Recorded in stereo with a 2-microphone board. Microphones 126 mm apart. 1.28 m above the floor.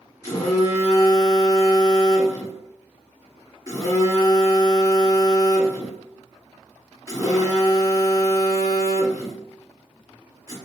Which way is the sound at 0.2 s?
30° left (ahead or behind).